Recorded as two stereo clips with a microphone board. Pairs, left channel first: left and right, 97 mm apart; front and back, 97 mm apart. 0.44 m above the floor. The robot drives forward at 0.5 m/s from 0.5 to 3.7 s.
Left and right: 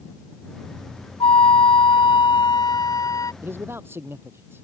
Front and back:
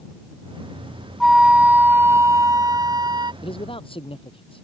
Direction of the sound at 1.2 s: 90° left.